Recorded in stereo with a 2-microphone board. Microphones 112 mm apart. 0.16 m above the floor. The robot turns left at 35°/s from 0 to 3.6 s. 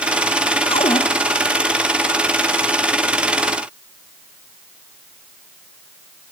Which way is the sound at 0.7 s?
60° left (ahead or behind).